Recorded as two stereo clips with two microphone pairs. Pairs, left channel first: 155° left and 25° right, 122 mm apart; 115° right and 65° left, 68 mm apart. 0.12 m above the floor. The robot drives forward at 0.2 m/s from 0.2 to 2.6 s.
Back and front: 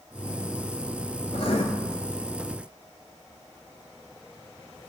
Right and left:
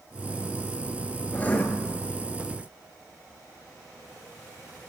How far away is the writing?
About 0.7 m.